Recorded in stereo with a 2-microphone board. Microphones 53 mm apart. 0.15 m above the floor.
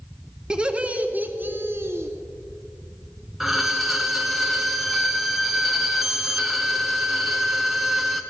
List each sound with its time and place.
0.5 s laughter: 15° right (ahead or behind), 1.3 m; by 2.1 s 55° right (ahead or behind), 1.8 m
3.4 s a violin: 5° right (ahead or behind), 1.0 m